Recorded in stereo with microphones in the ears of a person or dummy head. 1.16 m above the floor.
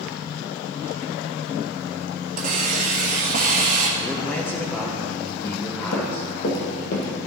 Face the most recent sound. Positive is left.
turn(degrees=60)  # may be behind; listen again after turning